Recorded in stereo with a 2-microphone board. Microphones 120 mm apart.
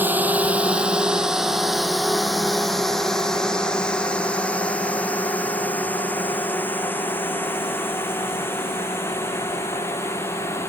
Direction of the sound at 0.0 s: 15° right (ahead or behind).